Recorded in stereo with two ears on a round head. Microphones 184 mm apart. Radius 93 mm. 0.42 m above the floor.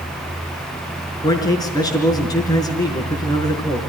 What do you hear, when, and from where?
1.2 s a man speaking: 20° left (ahead or behind), 5 m